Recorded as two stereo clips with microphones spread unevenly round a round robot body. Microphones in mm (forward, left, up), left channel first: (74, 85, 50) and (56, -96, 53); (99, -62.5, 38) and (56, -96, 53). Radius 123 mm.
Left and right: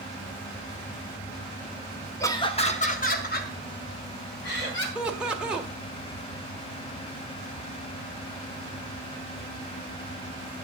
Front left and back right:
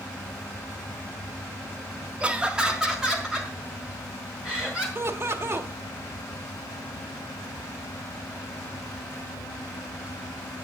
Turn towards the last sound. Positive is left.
turn(degrees=180)